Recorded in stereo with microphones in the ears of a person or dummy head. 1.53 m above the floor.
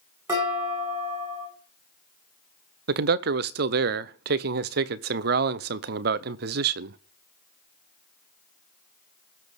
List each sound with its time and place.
0.3 s dishes clattering: 20° right (ahead or behind), 9.5 m
2.9 s a man speaking: 55° right (ahead or behind), 0.6 m